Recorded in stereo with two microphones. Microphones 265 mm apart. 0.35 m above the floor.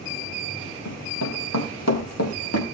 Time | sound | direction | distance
0.8 | running footsteps | 80° left | 5 m